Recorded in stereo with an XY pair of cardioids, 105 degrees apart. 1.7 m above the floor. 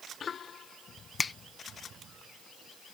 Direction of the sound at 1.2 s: 30° left.